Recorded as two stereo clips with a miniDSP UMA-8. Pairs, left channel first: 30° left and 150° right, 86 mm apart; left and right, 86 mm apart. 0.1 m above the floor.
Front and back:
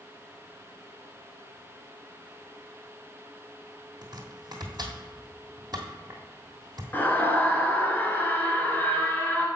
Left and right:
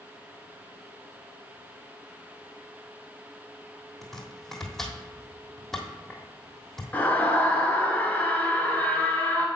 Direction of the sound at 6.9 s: 55° left.